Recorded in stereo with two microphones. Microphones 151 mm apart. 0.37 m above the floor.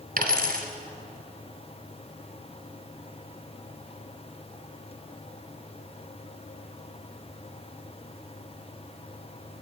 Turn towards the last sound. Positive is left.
turn(degrees=-90)